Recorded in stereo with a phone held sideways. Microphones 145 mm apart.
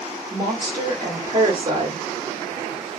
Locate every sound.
0.3 s a woman speaking: 35° right (ahead or behind), 1.1 m